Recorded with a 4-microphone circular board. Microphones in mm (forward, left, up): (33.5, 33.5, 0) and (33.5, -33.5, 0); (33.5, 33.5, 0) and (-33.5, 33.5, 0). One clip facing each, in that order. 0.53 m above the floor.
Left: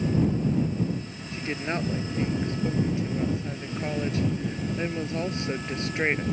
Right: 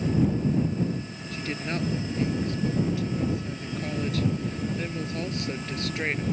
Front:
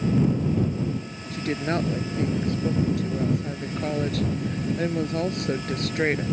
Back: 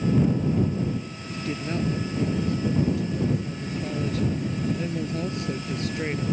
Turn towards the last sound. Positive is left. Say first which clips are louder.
# left 2 dB, front 4 dB
turn(degrees=25)